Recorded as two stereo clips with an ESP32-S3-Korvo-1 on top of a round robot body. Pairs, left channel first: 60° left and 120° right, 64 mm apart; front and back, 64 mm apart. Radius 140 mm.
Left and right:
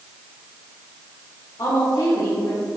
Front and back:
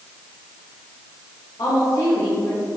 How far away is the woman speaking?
About 2.5 m.